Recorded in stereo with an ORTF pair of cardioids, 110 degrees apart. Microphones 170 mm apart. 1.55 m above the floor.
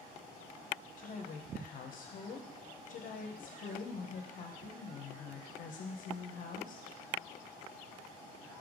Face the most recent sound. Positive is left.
turn(degrees=55)